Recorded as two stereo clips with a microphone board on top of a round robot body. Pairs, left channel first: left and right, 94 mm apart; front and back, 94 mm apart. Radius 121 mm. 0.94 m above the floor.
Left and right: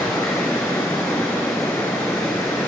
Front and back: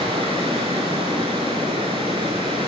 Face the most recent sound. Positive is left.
turn(degrees=160)